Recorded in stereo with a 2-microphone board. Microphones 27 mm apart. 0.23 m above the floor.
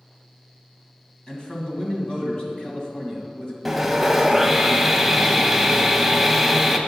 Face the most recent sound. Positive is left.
turn(degrees=-5)  # may be behind; listen again after turning